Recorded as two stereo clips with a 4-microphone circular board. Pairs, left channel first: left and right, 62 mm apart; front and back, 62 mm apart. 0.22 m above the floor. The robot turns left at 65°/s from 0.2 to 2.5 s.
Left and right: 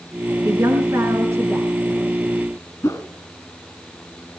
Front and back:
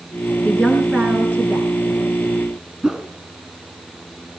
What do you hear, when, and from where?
0.5 s a woman speaking: 65° right, 3.5 m; by 1.7 s 145° right, 3.5 m
2.8 s a whoosh: 105° left, 2.5 m